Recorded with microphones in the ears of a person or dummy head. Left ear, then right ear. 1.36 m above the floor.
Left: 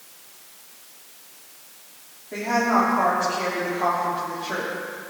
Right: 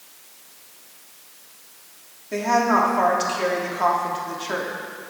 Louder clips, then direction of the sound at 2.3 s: Right 2 dB; 70° right (ahead or behind).